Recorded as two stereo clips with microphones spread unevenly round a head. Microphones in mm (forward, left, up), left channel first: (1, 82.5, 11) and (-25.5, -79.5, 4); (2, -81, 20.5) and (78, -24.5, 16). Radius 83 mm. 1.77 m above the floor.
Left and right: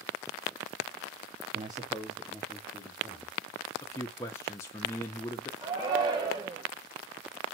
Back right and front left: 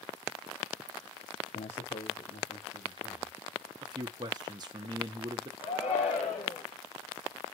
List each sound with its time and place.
1.6 s a man speaking: 155° right, 0.7 m; by 3.4 s 150° left, 2.5 m
3.8 s a man speaking: 15° left, 0.8 m
5.6 s a shout: 170° right, 0.9 m